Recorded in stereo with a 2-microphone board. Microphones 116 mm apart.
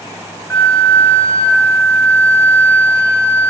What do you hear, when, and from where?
0.5 s a flute: 10° left (ahead or behind), 1.1 m